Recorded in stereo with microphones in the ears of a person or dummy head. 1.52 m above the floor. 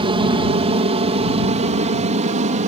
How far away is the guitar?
I don't hear a guitar.